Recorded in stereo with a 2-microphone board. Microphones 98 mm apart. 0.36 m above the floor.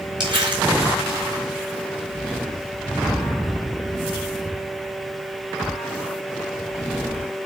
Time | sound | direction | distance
0.2 | crumpling | 50° right (ahead or behind) | 4 m